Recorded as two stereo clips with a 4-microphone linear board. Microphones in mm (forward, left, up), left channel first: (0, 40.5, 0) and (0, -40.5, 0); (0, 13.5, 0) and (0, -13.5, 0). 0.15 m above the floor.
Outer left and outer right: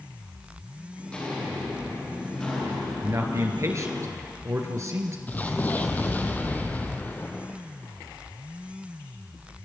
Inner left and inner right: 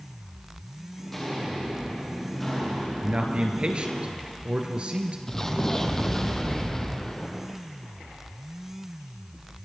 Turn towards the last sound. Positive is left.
turn(degrees=20)  # may be behind; listen again after turning